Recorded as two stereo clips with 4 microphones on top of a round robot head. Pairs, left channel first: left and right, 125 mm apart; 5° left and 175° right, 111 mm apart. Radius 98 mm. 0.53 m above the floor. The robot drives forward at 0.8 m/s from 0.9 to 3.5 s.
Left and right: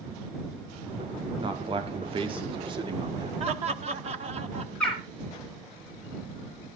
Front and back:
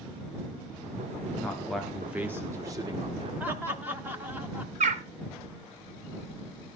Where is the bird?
175° left, 0.9 m.